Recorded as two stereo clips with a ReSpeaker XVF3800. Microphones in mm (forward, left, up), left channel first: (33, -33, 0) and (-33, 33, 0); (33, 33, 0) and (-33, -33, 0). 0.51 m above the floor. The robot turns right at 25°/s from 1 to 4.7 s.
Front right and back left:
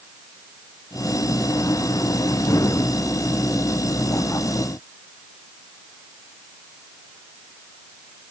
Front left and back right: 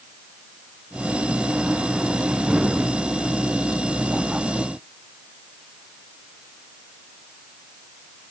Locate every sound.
Only background noise.